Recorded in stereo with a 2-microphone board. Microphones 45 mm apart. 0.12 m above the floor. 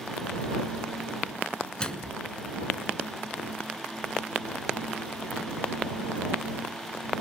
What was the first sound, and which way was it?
A microwave, 20° left (ahead or behind).